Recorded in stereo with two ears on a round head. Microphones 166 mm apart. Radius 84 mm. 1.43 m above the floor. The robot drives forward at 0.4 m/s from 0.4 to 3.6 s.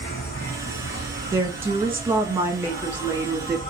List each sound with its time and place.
0.0 s an insect: 60° left (ahead or behind), 1.6 m; by 3.7 s 35° left (ahead or behind), 2.5 m
1.3 s a woman speaking: 15° right (ahead or behind), 1.3 m; by 3.6 s 10° right (ahead or behind), 2 m